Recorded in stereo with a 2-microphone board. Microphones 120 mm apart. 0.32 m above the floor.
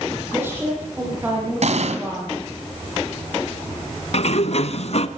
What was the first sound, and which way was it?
A woman speaking, 20° right (ahead or behind).